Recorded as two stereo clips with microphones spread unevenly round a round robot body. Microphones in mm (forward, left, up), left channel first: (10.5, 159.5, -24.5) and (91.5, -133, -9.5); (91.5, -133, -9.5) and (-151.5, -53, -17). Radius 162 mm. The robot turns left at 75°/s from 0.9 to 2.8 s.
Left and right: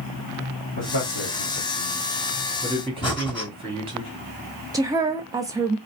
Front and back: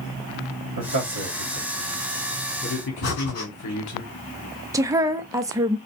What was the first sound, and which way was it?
A man speaking, 160° left.